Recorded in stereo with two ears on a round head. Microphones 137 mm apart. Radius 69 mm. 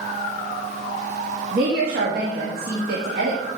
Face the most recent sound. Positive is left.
turn(degrees=-65)  # may be behind; listen again after turning